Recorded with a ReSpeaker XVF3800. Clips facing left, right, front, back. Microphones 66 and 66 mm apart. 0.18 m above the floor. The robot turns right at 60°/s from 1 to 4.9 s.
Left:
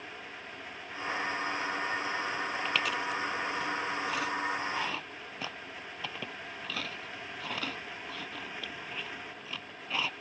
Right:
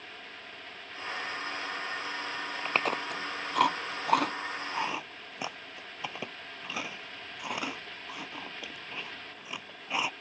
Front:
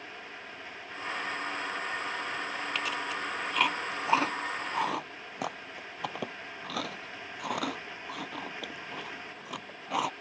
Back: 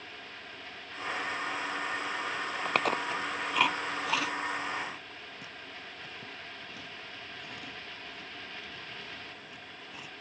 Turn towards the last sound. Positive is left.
turn(degrees=-15)